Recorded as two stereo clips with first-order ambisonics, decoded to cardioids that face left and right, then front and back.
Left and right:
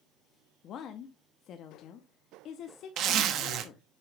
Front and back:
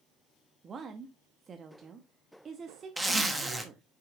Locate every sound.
0.6 s a woman speaking: 120° left, 0.8 m
3.0 s a zipper: 100° right, 1.1 m